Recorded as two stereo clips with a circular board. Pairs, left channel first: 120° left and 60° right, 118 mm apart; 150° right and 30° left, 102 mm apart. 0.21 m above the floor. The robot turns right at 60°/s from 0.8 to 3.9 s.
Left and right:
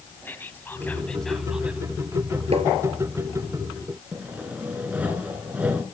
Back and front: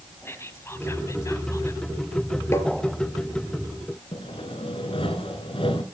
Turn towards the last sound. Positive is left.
turn(degrees=-140)